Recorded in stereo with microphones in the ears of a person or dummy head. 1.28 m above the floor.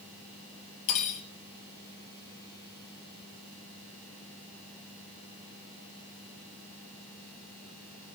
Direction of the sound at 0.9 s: 45° left (ahead or behind).